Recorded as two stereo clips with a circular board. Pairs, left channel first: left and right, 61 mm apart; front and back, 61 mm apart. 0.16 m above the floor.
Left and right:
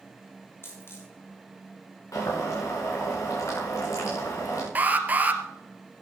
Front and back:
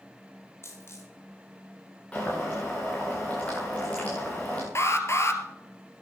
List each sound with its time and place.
0.6 s a dropped coin: 40° left, 6.5 m
2.1 s boiling: 65° left, 9 m
4.8 s an alarm: 30° right, 2.0 m